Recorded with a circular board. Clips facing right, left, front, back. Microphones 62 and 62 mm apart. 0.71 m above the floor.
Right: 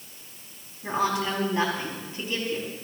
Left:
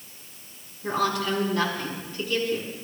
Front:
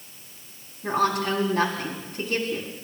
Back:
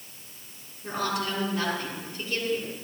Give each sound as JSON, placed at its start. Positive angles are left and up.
{"t": 0.8, "sound": "a woman speaking", "azimuth_deg": -25, "distance_m": 6.0}